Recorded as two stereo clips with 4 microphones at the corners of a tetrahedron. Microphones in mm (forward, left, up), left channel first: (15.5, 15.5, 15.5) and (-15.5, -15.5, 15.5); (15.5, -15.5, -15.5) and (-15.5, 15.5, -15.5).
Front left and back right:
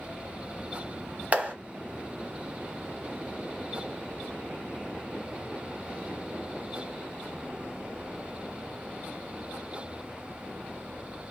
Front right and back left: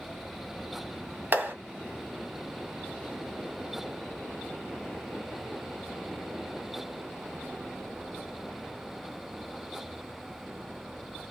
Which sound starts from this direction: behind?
A clap, at 1.3 s.